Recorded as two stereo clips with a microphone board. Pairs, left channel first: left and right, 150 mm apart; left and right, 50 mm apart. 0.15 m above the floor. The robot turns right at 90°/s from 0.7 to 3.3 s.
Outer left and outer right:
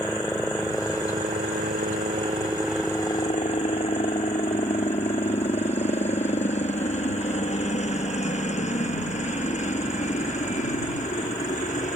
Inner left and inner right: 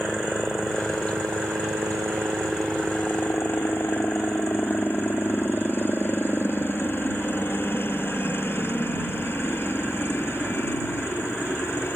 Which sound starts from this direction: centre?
A helicopter, at 0.0 s.